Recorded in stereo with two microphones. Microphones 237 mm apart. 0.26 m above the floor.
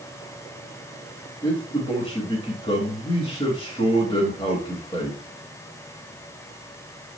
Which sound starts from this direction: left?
A man speaking, at 1.4 s.